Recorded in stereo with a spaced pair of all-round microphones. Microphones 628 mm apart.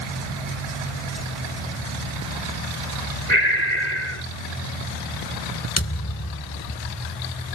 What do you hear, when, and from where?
3.3 s breathing: 85° right
5.8 s a thud: 20° left (ahead or behind)